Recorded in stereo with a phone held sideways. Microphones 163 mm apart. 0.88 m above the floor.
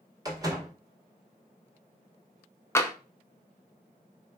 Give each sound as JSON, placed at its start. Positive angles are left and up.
{"t": 0.2, "sound": "a door slam", "side_deg": -25, "distance_m": 1.4}
{"t": 2.8, "sound": "tapping", "side_deg": 15, "distance_m": 0.7}